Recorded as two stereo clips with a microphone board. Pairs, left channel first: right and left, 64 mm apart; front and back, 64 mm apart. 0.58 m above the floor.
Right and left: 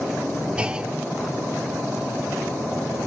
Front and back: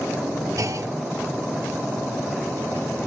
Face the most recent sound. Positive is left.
turn(degrees=160)